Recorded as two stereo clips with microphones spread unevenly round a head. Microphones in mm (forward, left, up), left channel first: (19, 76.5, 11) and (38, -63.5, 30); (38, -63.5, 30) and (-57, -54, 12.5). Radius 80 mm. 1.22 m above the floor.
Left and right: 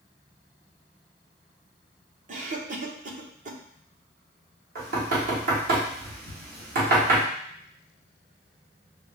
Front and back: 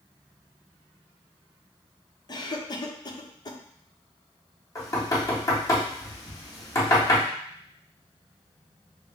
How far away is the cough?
About 1.0 m.